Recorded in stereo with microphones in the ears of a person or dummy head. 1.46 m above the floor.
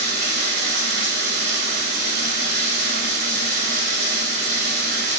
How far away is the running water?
About 2.5 m.